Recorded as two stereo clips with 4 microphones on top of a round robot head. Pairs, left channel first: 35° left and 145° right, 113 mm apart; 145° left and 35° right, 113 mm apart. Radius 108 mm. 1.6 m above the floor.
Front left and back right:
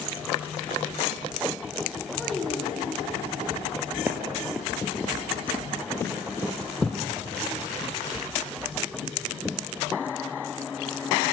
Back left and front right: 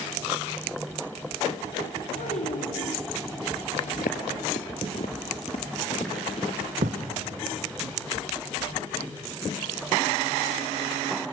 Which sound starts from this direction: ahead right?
A thud, at 6.8 s.